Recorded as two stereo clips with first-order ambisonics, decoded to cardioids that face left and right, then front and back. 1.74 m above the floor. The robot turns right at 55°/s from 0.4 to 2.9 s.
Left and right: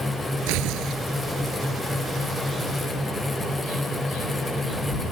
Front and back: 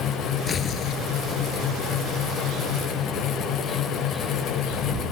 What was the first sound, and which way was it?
Tearing paper, 70° right.